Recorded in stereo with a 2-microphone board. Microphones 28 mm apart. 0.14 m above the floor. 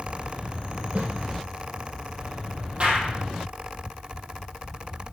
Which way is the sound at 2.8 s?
40° right (ahead or behind).